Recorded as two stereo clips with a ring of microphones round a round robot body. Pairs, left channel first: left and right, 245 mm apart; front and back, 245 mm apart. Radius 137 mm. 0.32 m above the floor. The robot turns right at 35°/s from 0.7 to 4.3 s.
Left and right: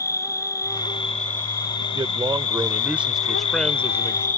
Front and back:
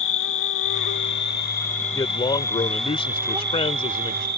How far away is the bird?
No bird in this recording.